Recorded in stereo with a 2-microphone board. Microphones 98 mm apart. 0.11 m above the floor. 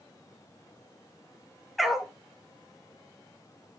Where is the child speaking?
No child speaking in this recording.